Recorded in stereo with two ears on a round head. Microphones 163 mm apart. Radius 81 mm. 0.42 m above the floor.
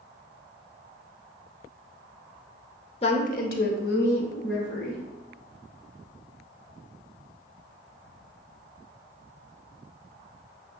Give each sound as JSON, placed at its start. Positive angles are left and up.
{"t": 3.0, "sound": "a woman speaking", "side_deg": 35, "distance_m": 1.0}